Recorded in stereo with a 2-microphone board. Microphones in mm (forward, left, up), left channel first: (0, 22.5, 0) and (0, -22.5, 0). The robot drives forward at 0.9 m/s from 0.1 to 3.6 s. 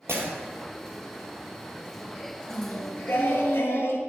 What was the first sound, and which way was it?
Breaking glass, 60° right (ahead or behind).